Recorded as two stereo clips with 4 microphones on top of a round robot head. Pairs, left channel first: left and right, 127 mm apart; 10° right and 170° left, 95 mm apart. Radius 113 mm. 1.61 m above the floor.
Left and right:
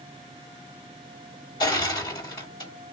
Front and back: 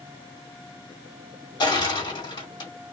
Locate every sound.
1.6 s crushing: 30° left, 2.5 m